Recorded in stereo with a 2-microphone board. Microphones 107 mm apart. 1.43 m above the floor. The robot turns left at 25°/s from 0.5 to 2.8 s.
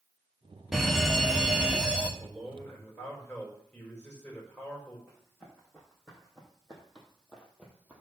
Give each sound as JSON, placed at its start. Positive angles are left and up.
{"t": 0.7, "sound": "a fire alarm", "side_deg": 0, "distance_m": 1.1}
{"t": 2.2, "sound": "a man speaking", "side_deg": -5, "distance_m": 5.0}
{"t": 5.1, "sound": "running footsteps", "side_deg": 5, "distance_m": 4.5}